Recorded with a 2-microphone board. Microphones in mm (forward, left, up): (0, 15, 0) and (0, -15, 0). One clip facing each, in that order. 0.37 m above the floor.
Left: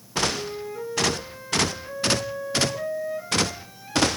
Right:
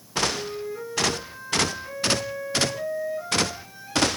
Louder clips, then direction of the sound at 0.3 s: Even; centre (ahead or behind).